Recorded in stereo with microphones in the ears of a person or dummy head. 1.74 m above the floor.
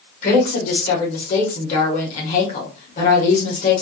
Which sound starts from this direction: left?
A woman speaking, at 0.2 s.